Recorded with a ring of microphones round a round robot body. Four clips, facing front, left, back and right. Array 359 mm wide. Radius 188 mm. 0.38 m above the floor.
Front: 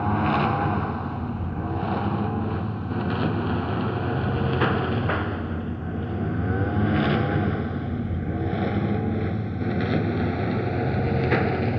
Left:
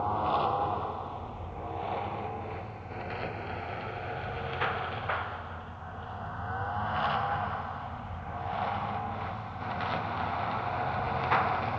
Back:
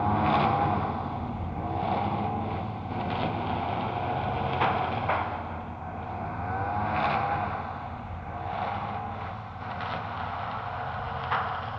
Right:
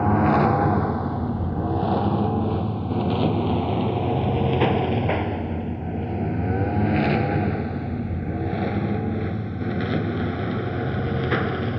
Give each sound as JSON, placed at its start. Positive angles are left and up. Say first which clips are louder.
{"t": 0.0, "sound": "a lawn mower", "louder": "right 9 dB, front 1 dB", "azimuth_deg": -80}